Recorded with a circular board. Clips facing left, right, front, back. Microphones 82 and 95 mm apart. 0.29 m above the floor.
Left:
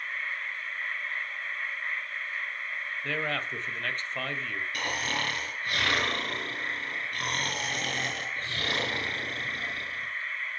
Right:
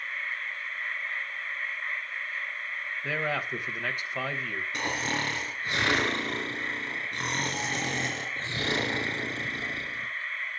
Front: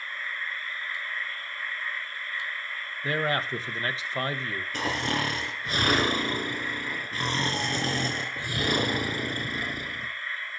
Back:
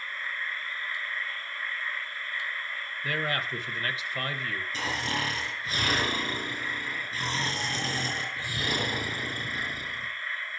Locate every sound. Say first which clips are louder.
3.0 s a man speaking: right 2 dB, front 4 dB; 20° right, 1.2 m
4.7 s snoring: right 2 dB, front 4 dB; 20° right, 4.5 m